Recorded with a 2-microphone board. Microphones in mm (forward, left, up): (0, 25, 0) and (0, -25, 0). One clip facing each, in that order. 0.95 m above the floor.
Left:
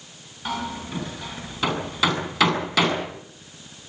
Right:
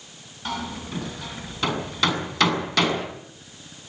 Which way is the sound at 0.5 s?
5° left (ahead or behind).